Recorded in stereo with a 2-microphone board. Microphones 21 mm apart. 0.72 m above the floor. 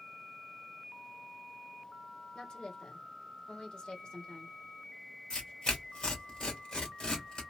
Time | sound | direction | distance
2.4 | a woman speaking | 45° left (ahead or behind) | 1.4 m
5.3 | tearing paper | 45° left (ahead or behind) | 1.6 m